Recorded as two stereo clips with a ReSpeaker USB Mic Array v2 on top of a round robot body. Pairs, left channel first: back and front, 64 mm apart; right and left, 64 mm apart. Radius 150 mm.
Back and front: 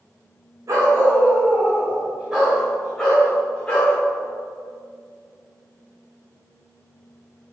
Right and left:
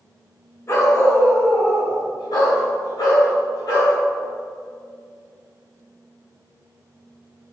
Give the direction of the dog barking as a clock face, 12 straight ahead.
1 o'clock.